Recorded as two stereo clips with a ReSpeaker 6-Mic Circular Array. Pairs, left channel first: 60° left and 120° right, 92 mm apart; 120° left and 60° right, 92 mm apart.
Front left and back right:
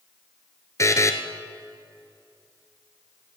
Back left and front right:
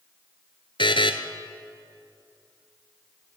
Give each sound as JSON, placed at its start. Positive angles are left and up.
{"t": 0.8, "sound": "a buzzer", "azimuth_deg": 110, "distance_m": 0.9}